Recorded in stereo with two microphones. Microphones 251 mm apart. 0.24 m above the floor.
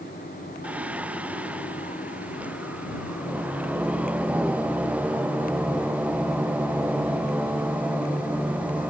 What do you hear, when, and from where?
0.6 s singing: 5° right (ahead or behind)